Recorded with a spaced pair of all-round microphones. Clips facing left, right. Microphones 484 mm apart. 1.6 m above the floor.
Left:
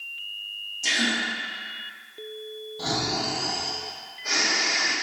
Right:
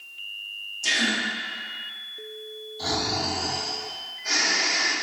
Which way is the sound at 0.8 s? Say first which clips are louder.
Even; 40° left (ahead or behind).